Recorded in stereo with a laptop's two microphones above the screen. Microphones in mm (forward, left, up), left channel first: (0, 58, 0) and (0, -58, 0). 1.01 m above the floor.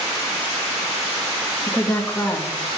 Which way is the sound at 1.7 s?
15° left (ahead or behind).